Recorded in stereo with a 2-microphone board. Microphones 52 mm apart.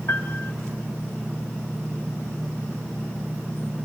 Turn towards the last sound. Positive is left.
turn(degrees=65)  # may be behind; listen again after turning